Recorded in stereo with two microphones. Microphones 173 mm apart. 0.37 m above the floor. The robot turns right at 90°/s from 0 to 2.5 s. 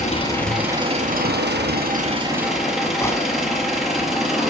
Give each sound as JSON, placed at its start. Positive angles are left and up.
{"t": 0.0, "sound": "an engine running", "azimuth_deg": 135, "distance_m": 4.5}
{"t": 3.0, "sound": "a gunshot", "side_deg": 15, "distance_m": 2.0}